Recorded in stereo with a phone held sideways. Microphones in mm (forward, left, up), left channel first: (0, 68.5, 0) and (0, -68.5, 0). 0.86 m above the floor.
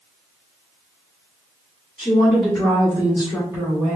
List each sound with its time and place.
2.0 s a woman speaking: 5° left (ahead or behind), 1.7 m; by 4.0 s 20° right (ahead or behind), 2.5 m